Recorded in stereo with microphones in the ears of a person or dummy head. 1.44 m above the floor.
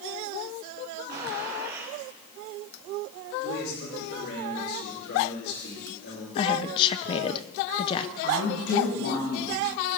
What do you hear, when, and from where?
1.1 s a gunshot: 55° right (ahead or behind), 3.5 m
3.4 s a man speaking: 80° left, 5.5 m
6.3 s a woman speaking: 30° left (ahead or behind), 0.9 m
8.2 s a woman speaking: 60° left (ahead or behind), 7.5 m